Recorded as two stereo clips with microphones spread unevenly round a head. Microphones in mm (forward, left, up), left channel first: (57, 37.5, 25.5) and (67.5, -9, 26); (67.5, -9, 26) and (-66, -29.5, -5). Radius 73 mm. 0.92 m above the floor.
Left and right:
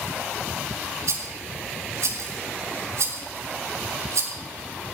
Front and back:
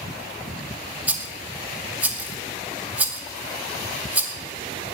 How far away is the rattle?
About 2 m.